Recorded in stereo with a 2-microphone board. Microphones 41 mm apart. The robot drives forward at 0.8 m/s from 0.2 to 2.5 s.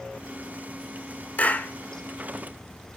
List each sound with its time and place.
1.4 s a clap: 40° left (ahead or behind), 1.9 m; by 1.7 s 45° left (ahead or behind), 1.8 m